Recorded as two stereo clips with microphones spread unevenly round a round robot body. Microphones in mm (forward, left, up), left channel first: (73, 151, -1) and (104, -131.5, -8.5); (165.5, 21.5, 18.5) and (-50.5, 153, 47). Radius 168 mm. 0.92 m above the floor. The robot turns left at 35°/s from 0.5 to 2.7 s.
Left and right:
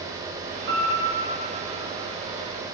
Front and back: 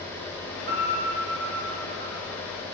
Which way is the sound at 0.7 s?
145° right.